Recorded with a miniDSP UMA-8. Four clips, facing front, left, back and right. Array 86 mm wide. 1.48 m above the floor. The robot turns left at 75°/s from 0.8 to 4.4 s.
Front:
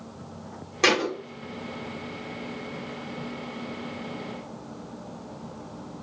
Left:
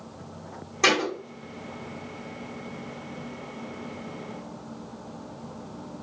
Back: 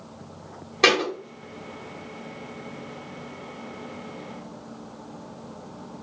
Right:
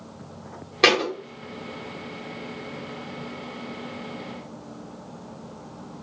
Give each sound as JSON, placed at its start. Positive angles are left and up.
{"t": 0.8, "sound": "a thud", "azimuth_deg": -110, "distance_m": 1.2}